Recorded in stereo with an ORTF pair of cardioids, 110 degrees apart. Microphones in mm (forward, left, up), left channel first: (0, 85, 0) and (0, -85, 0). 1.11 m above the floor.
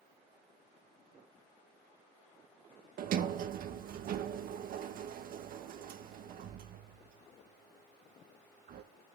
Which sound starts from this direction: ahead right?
A sliding door, at 3.0 s.